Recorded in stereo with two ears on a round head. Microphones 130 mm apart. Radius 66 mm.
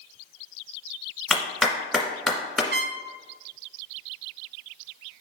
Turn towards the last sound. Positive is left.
turn(degrees=-85)